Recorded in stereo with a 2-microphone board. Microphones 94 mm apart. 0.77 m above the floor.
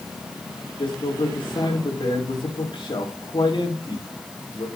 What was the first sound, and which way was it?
A man speaking, 60° left (ahead or behind).